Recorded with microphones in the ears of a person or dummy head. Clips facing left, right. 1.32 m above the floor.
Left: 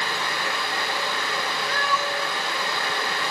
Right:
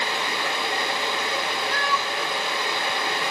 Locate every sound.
1.7 s a cat meowing: 75° left (ahead or behind), 2.5 m